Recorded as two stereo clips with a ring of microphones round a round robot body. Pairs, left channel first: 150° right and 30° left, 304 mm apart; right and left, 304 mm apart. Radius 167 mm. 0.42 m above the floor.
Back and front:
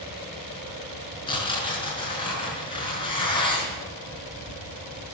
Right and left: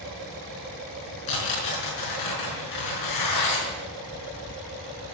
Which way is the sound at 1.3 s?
75° right.